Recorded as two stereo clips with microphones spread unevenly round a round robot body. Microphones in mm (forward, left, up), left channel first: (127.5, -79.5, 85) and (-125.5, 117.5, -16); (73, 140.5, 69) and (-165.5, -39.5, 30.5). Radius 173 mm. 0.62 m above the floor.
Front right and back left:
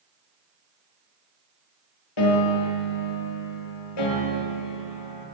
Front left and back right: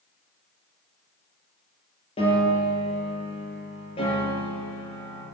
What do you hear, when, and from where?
2.2 s a piano: 40° right, 4 m